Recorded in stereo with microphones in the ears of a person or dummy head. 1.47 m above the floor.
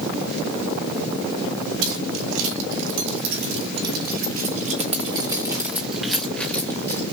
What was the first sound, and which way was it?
Keys jangling, 75° right (ahead or behind).